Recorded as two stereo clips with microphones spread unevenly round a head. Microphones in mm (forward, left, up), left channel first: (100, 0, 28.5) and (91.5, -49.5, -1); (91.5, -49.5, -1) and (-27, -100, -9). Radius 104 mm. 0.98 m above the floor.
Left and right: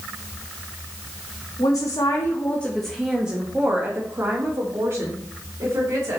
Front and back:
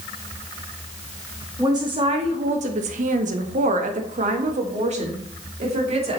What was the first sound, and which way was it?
A woman speaking, 135° left.